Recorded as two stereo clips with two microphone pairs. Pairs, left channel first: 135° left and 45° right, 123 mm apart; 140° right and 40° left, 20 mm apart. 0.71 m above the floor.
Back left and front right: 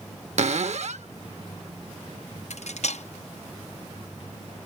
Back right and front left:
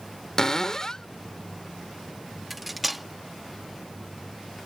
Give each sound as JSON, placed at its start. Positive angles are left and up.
{"t": 0.4, "sound": "a cupboard door", "azimuth_deg": -70}
{"t": 2.5, "sound": "cutlery clinking", "azimuth_deg": 135}